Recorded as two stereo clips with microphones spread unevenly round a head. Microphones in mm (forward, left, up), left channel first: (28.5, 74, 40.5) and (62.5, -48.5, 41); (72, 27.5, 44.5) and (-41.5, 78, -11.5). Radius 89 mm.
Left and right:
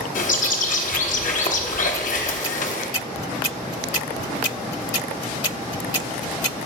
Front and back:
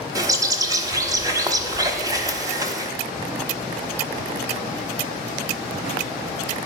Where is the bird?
85° left, 1.1 m.